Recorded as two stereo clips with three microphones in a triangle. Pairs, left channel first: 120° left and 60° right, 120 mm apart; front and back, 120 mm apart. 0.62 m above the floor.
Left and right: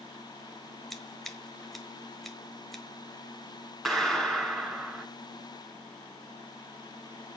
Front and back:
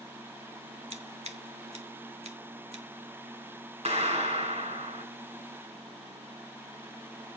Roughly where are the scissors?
Behind right.